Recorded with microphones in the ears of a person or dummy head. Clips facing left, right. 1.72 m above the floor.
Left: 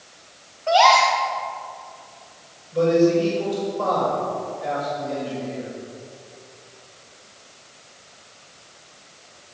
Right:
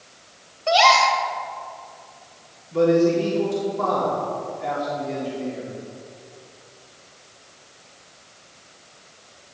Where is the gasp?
40° right (ahead or behind), 1.9 m.